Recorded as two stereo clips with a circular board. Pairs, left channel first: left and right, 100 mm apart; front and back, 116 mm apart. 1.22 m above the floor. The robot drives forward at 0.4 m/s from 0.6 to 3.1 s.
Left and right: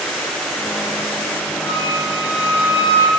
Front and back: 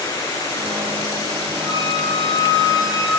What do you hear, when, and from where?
1.6 s a flute: 130° left, 7 m; by 3.1 s 135° left, 7.5 m